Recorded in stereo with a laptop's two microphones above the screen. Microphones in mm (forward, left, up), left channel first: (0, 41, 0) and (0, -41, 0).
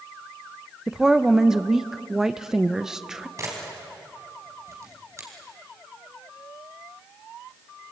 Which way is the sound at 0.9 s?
5° right (ahead or behind).